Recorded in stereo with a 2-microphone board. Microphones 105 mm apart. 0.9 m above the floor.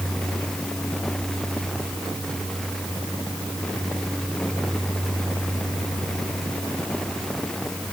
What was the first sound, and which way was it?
Only background noise.